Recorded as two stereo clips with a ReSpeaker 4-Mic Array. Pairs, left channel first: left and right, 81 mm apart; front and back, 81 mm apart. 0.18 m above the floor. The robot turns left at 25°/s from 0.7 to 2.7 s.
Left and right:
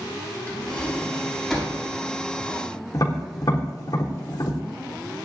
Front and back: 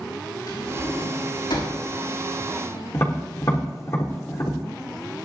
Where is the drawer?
20° left, 6 m; by 1.8 s 10° right, 6 m.